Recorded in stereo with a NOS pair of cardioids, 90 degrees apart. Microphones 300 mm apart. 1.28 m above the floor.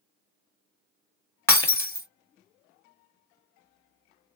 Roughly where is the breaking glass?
Ahead.